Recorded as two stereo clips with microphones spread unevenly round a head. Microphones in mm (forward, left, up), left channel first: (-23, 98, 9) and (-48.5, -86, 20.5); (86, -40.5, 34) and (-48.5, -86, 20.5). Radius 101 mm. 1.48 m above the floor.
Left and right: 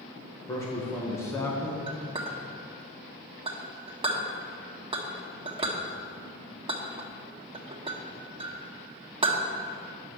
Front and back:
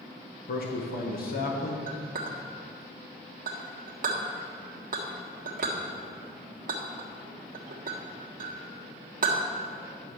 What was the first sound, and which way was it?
A man speaking, 5° left.